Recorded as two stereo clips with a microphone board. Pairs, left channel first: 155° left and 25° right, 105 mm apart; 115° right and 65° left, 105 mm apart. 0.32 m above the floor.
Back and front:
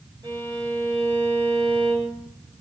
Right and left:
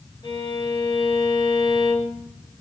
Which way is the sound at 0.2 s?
70° right.